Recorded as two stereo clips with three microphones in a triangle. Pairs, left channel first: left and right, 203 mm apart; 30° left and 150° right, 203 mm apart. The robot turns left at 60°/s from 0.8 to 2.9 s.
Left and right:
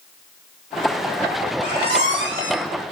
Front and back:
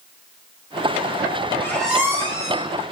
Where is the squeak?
45° right, 2.5 m; by 2.7 s 110° right, 2.5 m.